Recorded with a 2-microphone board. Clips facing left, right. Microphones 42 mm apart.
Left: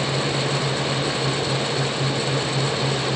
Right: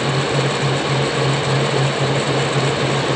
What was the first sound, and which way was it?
Only background noise.